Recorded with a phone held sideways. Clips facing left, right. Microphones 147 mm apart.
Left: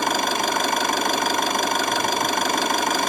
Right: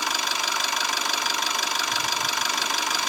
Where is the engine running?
50° left (ahead or behind), 0.9 m.